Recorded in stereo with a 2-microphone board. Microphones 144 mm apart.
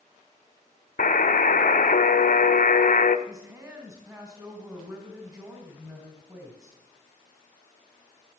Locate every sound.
1.0 s a buzzer: 70° left (ahead or behind), 0.7 m
3.3 s a woman speaking: 25° right (ahead or behind), 2 m